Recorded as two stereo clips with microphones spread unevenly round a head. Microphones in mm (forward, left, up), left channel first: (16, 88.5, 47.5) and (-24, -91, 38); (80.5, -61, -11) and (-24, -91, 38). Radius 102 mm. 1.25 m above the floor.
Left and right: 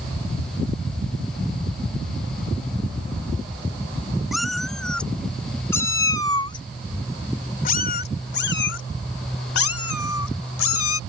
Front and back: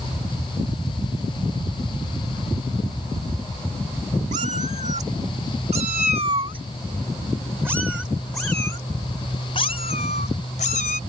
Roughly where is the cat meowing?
Behind.